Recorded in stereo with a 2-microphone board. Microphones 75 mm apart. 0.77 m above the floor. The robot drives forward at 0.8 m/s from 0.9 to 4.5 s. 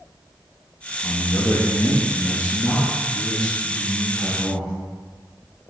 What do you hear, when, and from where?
1.0 s a man speaking: 45° left (ahead or behind), 1.0 m; by 4.7 s 15° left (ahead or behind), 3 m